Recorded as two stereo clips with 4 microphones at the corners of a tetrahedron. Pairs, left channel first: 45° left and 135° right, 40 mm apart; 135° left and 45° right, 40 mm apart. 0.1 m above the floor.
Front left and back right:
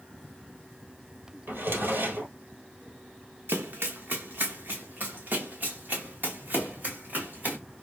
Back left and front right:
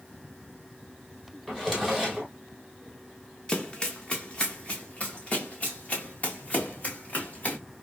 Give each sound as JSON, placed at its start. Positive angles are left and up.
{"t": 1.5, "sound": "a drawer", "azimuth_deg": -140, "distance_m": 1.4}
{"t": 3.5, "sound": "running footsteps", "azimuth_deg": -155, "distance_m": 1.0}